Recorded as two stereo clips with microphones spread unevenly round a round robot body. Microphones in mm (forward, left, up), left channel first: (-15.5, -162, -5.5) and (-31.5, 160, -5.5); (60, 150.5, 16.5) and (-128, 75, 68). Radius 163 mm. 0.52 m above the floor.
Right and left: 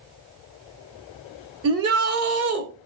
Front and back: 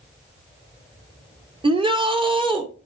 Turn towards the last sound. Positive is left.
turn(degrees=130)